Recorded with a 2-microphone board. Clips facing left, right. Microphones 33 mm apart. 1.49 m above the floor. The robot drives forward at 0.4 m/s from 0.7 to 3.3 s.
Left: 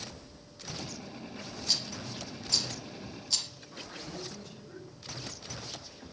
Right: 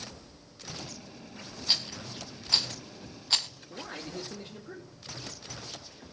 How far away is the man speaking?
About 2.5 m.